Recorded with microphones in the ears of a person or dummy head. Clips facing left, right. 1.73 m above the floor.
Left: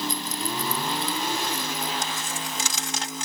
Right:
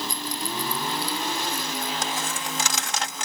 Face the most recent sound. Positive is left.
turn(degrees=-45)  # may be behind; listen again after turning